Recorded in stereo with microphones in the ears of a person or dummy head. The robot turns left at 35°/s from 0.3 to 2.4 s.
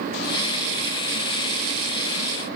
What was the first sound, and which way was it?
Only background noise.